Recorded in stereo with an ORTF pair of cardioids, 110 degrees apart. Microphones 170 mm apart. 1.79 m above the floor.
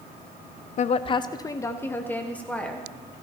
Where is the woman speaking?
45° left, 0.6 m; by 2.9 s 5° left, 2 m.